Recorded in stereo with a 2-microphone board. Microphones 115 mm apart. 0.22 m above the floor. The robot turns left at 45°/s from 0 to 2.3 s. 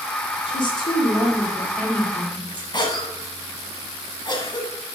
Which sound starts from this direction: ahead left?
A woman speaking, at 0.5 s.